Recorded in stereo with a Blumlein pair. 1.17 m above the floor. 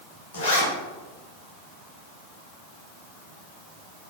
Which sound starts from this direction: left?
A zipper, at 0.3 s.